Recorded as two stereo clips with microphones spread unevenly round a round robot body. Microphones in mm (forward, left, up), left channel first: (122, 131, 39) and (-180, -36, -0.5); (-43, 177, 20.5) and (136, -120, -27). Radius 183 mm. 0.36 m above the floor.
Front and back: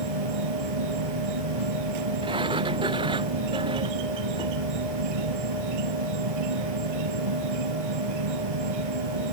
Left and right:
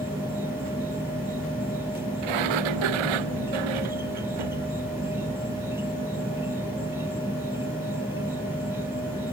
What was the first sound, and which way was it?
An insect, 145° right.